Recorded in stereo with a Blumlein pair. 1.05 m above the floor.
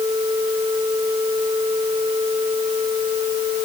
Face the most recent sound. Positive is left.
No sound to turn to.